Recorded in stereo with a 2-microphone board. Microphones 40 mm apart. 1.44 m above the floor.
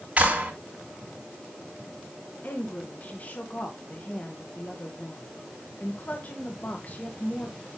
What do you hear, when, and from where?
0.2 s a clap: 35° right (ahead or behind), 3.5 m
2.4 s a woman speaking: 40° left (ahead or behind), 1.7 m